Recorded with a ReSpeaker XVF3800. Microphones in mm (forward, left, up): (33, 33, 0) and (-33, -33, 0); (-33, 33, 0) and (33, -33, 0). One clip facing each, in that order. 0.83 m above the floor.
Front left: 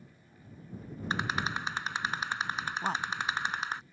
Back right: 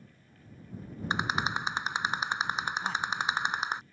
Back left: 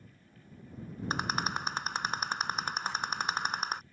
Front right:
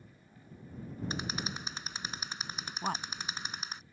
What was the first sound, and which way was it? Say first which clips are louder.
A rattle: back right 2 dB, back left 8 dB; 155° left.